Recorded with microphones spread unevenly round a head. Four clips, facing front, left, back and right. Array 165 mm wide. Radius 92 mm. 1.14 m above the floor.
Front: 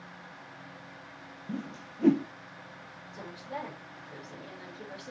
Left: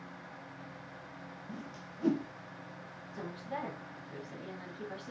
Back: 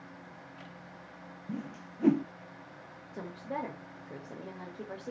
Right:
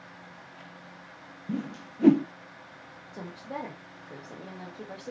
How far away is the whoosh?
About 0.6 m.